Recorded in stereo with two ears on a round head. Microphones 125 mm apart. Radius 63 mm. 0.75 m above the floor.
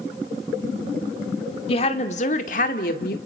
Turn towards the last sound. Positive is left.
turn(degrees=70)  # may be behind; listen again after turning